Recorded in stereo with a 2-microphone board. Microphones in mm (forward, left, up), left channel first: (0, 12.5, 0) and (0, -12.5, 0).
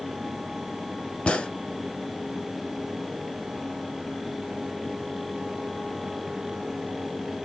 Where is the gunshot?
40° left (ahead or behind), 0.8 m.